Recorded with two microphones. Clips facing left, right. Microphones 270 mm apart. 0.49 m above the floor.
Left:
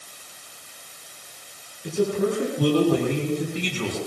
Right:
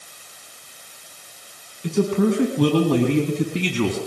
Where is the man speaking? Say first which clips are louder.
Right 3 dB; 80° right, 6 m; by 4.0 s 65° right (ahead or behind), 5.5 m.